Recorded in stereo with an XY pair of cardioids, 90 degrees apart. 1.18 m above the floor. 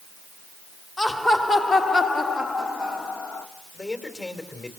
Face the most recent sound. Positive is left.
turn(degrees=35)